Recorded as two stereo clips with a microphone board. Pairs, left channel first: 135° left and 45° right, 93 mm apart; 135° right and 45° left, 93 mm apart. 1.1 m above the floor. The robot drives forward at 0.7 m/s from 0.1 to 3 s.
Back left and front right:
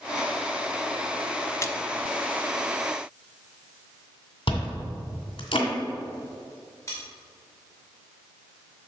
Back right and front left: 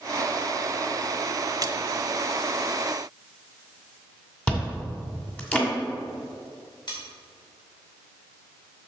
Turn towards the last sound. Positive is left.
turn(degrees=-170)